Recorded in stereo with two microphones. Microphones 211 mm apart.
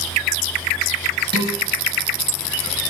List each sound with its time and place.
1.3 s dishes clattering: 55° right (ahead or behind), 4.5 m